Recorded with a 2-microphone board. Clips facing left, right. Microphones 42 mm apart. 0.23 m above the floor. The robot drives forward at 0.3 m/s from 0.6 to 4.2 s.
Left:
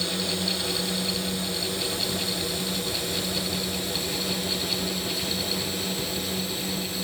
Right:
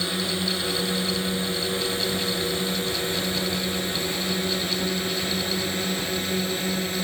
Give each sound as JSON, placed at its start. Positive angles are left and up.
{"t": 0.0, "sound": "a drone", "side_deg": -25}